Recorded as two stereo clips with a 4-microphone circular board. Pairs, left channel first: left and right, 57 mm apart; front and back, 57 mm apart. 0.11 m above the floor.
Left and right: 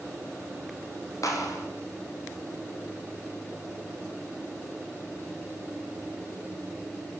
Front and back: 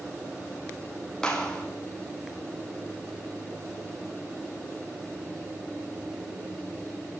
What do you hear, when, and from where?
1.2 s a clap: 75° left, 5.5 m